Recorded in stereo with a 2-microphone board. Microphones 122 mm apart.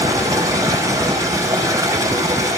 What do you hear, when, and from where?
0.0 s running water: 30° right (ahead or behind), 3 m